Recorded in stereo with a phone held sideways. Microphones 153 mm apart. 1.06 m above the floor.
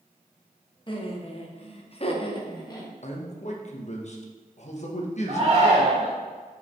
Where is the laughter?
35° left (ahead or behind), 1.2 m; by 2.9 s 25° left (ahead or behind), 1.4 m.